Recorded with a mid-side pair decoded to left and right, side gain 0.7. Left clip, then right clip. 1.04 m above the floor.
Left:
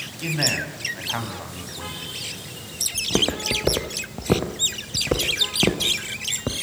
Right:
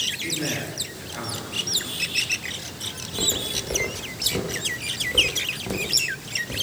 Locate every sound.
0.2 s a man speaking: 60° left, 7.5 m
2.9 s footsteps: 65° left, 4 m